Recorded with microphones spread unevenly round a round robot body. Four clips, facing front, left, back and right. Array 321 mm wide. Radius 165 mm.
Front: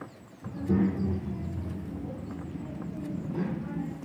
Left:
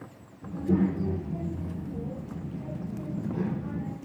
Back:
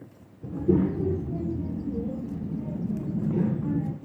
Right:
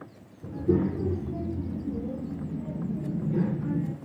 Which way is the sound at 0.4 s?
160° right.